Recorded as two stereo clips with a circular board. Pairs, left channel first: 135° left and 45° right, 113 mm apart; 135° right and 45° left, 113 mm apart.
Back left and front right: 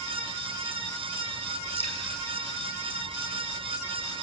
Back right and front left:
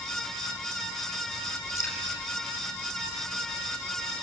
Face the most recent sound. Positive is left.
turn(degrees=160)